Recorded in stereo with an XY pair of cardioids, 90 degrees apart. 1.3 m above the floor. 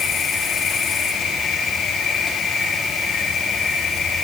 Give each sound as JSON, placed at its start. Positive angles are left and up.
{"t": 0.0, "sound": "an insect", "azimuth_deg": 55, "distance_m": 7.5}